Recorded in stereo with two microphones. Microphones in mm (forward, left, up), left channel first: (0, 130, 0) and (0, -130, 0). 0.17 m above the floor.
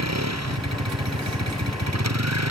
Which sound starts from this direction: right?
A vehicle, at 0.0 s.